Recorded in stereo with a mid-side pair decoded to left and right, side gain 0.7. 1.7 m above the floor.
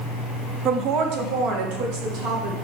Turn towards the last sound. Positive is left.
turn(degrees=-65)